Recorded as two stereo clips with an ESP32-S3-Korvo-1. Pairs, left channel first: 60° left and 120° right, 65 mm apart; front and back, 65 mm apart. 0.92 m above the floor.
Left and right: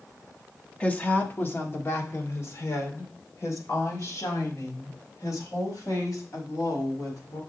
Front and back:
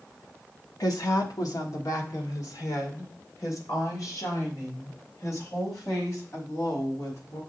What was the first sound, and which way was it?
A woman speaking, 10° right.